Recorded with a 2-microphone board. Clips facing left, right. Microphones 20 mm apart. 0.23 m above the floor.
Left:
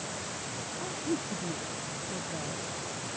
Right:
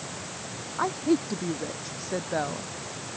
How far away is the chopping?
I don't hear chopping.